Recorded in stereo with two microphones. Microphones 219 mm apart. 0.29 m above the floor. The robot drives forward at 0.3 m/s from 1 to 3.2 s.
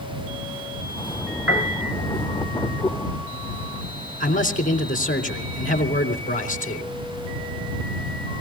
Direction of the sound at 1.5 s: 70° right (ahead or behind).